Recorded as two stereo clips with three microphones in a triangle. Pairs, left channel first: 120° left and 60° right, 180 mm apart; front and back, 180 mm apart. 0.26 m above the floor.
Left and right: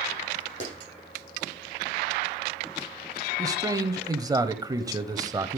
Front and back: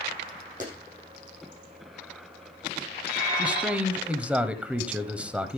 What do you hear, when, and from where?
0.6 s a clap: 135° left, 8 m
3.4 s a man speaking: 105° right, 1.0 m